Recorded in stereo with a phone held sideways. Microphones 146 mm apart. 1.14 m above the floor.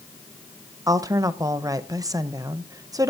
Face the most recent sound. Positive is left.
turn(degrees=-25)  # may be behind; listen again after turning